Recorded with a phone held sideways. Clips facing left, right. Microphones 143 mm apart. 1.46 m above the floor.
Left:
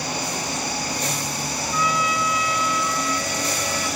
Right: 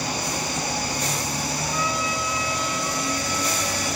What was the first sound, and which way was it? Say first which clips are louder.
A trumpet: left 6 dB; 30° right (ahead or behind).